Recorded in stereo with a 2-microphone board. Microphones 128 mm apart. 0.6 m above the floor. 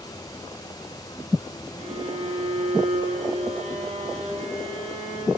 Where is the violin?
55° right (ahead or behind), 8.5 m.